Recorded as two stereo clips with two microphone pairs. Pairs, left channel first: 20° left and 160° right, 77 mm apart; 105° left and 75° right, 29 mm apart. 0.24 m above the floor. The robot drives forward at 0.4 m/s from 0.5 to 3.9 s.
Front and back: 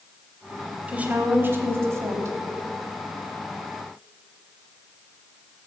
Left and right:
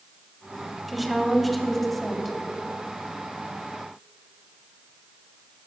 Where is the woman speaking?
170° right, 1.0 m; by 2.4 s 175° right, 1.3 m.